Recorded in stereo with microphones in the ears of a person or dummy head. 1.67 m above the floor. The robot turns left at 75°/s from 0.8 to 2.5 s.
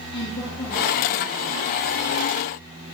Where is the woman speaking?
25° left, 1.8 m; by 1.7 s 40° right, 1.8 m.